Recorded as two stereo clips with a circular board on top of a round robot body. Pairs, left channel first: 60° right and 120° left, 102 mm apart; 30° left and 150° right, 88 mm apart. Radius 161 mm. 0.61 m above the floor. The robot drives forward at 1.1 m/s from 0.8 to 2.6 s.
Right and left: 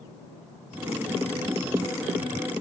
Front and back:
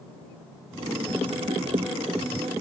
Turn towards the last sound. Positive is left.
No sound to turn to.